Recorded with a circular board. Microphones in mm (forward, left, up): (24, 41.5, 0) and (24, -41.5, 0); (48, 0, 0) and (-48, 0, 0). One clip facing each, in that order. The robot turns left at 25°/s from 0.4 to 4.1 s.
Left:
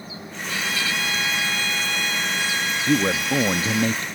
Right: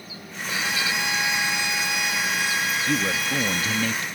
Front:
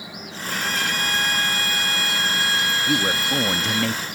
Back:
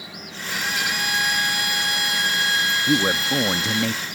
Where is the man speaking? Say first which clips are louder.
Left 8 dB, back 3 dB; 120° left; by 4.1 s 90° left.